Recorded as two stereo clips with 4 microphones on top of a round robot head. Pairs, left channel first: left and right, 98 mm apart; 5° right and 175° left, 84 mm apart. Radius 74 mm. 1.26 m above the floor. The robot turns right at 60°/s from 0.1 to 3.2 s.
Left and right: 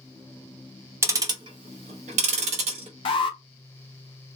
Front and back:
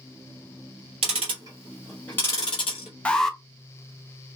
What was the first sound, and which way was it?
Ticking, 150° right.